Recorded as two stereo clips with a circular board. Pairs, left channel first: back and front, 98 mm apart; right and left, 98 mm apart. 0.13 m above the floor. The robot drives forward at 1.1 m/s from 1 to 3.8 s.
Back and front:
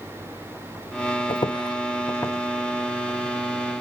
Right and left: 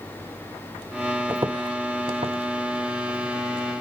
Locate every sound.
1.3 s footsteps: 155° left, 0.6 m; by 3.4 s 105° left, 2.5 m